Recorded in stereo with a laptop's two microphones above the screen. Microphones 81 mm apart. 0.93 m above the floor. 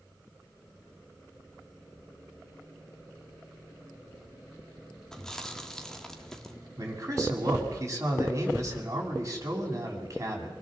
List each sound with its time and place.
5.1 s chewing: 5° left (ahead or behind), 1.4 m
6.8 s a man speaking: 40° right (ahead or behind), 6 m